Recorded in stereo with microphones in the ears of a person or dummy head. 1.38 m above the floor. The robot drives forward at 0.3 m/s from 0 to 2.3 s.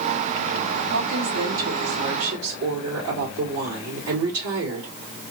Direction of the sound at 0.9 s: 85° right.